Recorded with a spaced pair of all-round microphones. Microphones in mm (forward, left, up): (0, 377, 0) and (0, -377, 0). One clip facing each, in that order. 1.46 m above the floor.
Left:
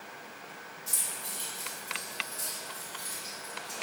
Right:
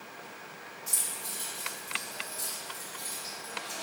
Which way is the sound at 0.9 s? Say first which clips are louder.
Even; 10° right (ahead or behind).